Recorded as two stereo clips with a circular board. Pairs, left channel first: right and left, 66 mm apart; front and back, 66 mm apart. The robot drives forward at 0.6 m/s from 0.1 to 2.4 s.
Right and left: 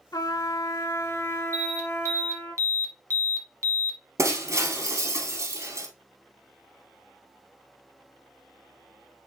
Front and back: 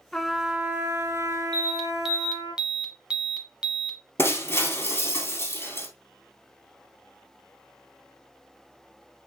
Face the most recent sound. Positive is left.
turn(degrees=50)